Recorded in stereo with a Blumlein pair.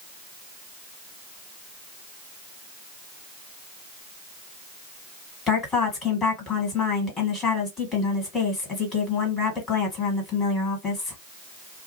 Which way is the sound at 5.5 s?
20° left.